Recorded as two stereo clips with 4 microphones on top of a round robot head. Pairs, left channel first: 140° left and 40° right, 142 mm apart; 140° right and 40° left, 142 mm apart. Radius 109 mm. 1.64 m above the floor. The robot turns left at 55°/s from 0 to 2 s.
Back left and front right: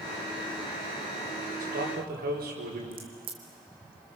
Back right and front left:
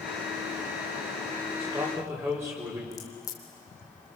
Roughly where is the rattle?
I don't hear a rattle.